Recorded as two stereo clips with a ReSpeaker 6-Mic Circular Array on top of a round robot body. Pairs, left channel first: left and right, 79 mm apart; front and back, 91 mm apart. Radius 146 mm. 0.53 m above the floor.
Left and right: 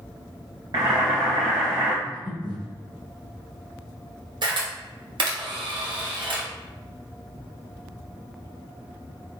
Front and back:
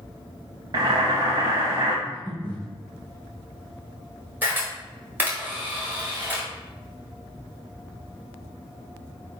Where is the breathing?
75° right, 1.4 m.